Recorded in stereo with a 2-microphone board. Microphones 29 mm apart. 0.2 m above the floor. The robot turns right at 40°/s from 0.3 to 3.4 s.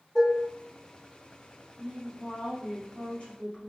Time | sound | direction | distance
0.1 | dishes clattering | 25° left (ahead or behind) | 1.3 m
1.8 | a woman speaking | 20° left | 1.5 m